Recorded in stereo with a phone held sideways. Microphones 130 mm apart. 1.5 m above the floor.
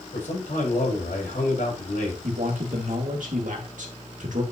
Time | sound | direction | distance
0.1 | a man speaking | 75° left (ahead or behind) | 6.5 m
2.2 | a man speaking | 80° right | 2 m